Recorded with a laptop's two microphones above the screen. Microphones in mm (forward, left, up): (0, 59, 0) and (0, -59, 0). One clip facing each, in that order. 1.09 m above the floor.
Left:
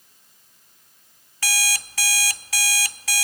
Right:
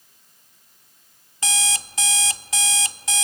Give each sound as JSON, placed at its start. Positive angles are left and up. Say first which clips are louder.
{"t": 1.4, "sound": "an alarm clock", "louder": "right 2 dB", "side_deg": -20, "distance_m": 0.7}